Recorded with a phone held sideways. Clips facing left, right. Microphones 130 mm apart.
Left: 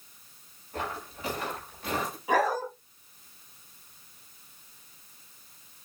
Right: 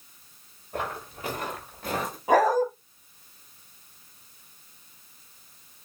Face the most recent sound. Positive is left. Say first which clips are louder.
# right 6 dB
turn(degrees=-45)  # may be behind; listen again after turning